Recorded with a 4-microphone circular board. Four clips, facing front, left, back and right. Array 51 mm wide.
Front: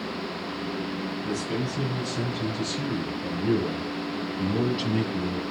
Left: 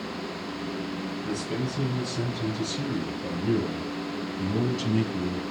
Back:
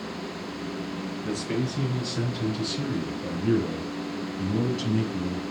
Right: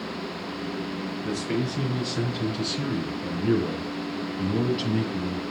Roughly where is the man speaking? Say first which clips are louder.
Right 4 dB, back 2 dB; behind right.